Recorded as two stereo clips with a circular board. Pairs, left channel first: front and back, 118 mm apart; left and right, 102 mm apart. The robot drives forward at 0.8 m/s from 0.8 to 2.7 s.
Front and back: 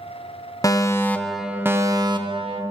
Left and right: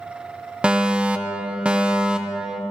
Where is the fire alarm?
20° right, 0.9 m; by 2.6 s 170° right, 1.3 m.